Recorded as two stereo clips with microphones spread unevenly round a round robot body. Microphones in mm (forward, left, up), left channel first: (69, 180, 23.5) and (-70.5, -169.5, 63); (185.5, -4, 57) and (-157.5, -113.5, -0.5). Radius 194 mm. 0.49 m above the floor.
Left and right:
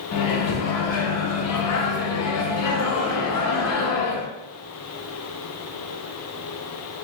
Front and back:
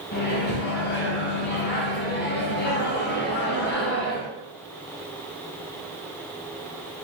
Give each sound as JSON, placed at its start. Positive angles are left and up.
{"t": 0.1, "sound": "a microwave", "azimuth_deg": 80, "distance_m": 0.6}